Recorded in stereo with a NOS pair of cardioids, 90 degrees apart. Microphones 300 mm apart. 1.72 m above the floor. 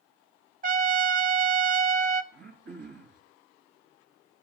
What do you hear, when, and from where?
0.6 s a trumpet: 30° right, 0.6 m
2.3 s throat clearing: 40° right, 4 m